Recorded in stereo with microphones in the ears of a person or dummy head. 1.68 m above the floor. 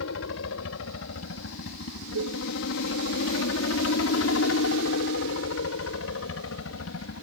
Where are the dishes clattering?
80° right.